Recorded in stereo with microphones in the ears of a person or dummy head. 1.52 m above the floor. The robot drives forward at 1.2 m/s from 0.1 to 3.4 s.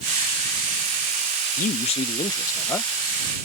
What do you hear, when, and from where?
1.6 s a man speaking: 35° left (ahead or behind); by 2.9 s 10° left (ahead or behind)